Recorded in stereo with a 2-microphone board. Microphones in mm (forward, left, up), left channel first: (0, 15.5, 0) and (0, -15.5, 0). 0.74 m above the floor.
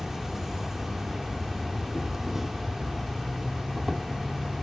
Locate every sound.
0.0 s an insect: 15° right (ahead or behind), 0.9 m